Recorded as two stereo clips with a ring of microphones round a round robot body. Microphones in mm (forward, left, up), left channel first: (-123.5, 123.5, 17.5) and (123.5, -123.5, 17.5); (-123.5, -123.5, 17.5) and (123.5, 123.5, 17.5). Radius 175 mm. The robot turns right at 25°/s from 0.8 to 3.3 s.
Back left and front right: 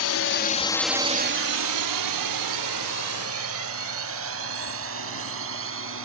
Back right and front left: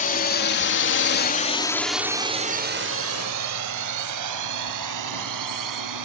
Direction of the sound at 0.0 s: 165° left.